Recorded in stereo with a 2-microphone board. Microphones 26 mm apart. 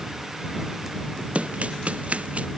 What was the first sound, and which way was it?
Running footsteps, 55° right (ahead or behind).